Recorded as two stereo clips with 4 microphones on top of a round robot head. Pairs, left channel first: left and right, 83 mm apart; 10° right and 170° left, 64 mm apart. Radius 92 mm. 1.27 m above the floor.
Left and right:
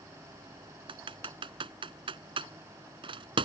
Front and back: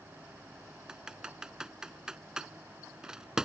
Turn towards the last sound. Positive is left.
turn(degrees=-110)